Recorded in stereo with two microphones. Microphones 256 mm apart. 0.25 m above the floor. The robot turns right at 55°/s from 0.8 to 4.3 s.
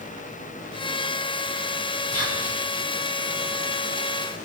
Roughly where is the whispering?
Left.